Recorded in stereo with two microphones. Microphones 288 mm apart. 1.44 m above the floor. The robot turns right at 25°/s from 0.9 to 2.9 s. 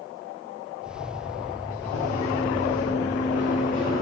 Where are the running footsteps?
50° left (ahead or behind), 5 m; by 4.0 s 45° left (ahead or behind), 5.5 m.